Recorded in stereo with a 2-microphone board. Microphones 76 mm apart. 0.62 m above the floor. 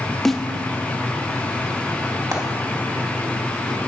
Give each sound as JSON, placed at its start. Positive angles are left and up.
{"t": 0.2, "sound": "a snare drum", "side_deg": 5, "distance_m": 0.7}
{"t": 2.3, "sound": "frying", "side_deg": -50, "distance_m": 1.8}